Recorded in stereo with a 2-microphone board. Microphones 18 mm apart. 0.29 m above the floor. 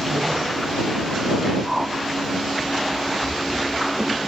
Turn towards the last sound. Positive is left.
turn(degrees=-20)  # may be behind; listen again after turning